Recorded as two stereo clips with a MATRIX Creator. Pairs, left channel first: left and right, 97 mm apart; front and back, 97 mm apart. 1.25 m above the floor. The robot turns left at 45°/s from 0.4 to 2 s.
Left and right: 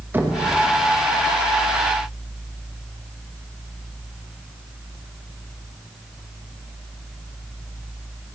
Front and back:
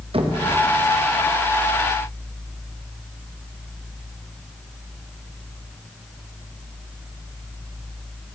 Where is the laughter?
No laughter in this recording.